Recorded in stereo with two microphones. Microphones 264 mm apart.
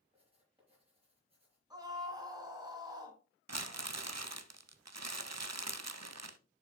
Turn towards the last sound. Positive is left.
turn(degrees=-75)  # may be behind; listen again after turning